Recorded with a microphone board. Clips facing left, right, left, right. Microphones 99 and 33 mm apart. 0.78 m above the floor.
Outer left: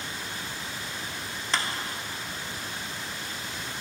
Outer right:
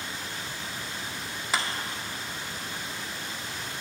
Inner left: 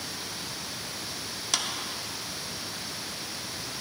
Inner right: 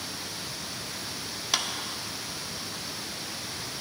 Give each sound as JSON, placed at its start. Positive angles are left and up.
{"t": 1.5, "sound": "a clap", "side_deg": -10, "distance_m": 0.9}